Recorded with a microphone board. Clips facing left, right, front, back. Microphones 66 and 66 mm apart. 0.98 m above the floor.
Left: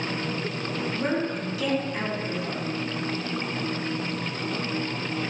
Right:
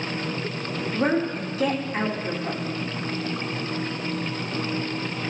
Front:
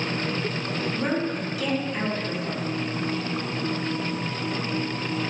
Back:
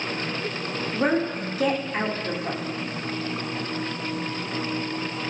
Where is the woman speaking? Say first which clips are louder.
Right 5 dB, back 5 dB; 135° right, 3 m.